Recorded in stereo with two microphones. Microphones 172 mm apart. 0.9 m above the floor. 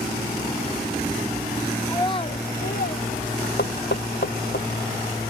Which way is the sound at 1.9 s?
15° left (ahead or behind).